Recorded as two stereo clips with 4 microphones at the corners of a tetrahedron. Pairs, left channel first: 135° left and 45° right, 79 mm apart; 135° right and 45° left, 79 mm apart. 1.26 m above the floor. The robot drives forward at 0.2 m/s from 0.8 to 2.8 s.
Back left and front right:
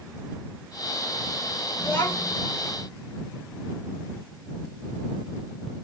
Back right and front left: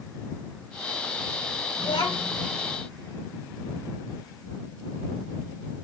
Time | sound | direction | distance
1.8 | a child speaking | 160° right | 1.4 m